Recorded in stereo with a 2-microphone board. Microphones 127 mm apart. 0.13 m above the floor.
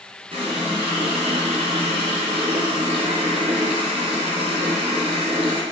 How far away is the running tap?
About 2.5 m.